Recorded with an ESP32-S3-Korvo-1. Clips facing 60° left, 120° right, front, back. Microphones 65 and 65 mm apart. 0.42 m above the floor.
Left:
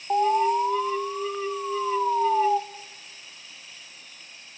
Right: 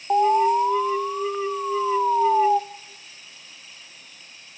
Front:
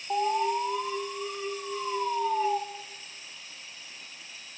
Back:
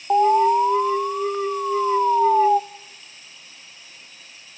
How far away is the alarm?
About 0.7 m.